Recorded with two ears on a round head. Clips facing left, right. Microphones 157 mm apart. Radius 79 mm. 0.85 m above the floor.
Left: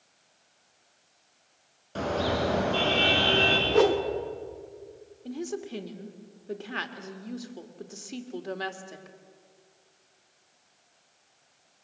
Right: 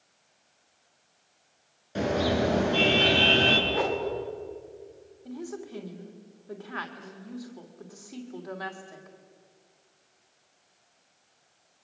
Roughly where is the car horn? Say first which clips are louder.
Right 2 dB; centre.